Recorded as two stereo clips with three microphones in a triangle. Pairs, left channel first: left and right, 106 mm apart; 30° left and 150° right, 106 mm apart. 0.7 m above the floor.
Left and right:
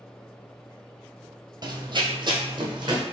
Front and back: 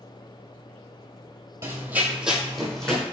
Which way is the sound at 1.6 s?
105° right.